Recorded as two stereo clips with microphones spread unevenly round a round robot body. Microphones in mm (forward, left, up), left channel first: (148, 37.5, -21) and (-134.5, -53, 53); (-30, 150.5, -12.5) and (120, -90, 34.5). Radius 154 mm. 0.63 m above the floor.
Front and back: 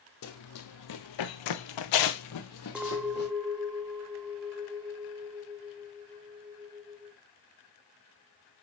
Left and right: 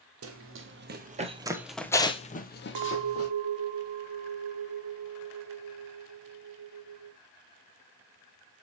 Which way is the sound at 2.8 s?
75° right.